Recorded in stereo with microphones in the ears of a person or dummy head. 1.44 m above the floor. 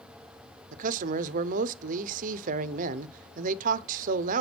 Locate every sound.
0.7 s a man speaking: 50° right (ahead or behind), 0.6 m